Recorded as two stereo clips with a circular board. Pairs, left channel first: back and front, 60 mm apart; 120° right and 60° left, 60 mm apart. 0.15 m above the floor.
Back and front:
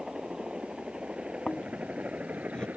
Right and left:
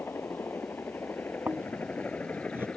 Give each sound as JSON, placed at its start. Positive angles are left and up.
{"t": 0.0, "sound": "a helicopter", "azimuth_deg": -80}
{"t": 1.5, "sound": "snoring", "azimuth_deg": 105}